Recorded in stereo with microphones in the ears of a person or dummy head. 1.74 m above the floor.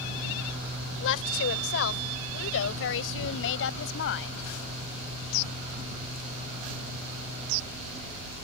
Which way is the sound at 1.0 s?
70° left (ahead or behind).